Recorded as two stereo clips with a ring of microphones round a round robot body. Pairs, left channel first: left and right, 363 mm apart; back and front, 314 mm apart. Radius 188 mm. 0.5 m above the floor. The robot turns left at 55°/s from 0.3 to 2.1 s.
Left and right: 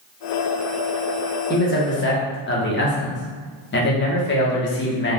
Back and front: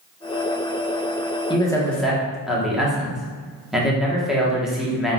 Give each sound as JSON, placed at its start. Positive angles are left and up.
{"t": 1.5, "sound": "a man speaking", "azimuth_deg": 120, "distance_m": 1.2}